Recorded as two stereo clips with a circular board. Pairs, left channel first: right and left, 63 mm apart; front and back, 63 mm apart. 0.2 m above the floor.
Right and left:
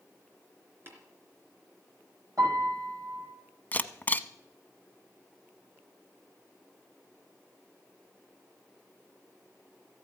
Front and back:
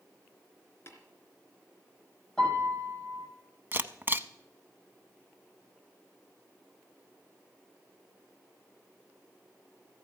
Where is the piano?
80° left, 6.5 m.